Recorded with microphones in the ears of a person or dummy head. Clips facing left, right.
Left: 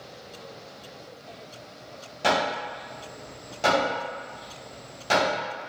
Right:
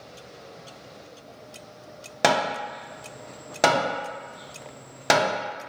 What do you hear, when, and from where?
2.2 s hammering: 70° right (ahead or behind), 0.6 m